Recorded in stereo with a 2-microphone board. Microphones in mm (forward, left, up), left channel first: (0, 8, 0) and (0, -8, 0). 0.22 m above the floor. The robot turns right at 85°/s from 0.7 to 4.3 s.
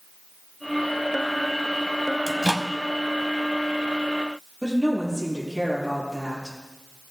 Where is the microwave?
20° left (ahead or behind), 0.8 m; by 2.7 s 5° left (ahead or behind), 0.8 m.